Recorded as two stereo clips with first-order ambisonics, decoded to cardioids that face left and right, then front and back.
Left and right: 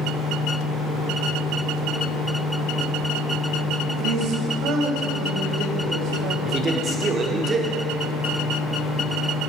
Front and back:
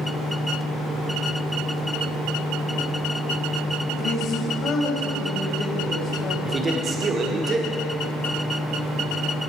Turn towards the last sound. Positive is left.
turn(degrees=-135)